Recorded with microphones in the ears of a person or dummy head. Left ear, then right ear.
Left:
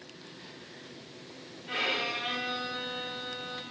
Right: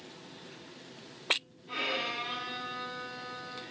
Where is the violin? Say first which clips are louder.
Left 3 dB; 45° left (ahead or behind), 3.5 m.